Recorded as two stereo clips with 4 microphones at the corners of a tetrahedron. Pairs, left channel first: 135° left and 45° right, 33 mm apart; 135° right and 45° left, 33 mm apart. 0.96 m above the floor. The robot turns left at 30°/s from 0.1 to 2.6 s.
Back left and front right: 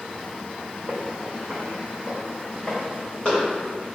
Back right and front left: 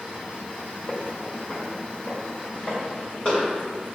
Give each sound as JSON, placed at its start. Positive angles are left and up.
{"t": 0.9, "sound": "footsteps", "azimuth_deg": -75, "distance_m": 1.5}